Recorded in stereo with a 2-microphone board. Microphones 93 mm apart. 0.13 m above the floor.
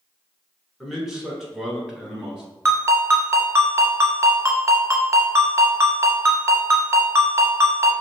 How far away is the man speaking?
About 1.1 m.